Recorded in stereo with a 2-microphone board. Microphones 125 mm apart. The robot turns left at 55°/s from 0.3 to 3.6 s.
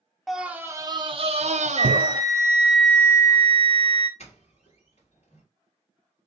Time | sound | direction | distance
0.3 | a scream | straight ahead | 0.6 m
1.8 | a flute | 125° right | 0.9 m
4.2 | a doorbell | 55° left (ahead or behind) | 2 m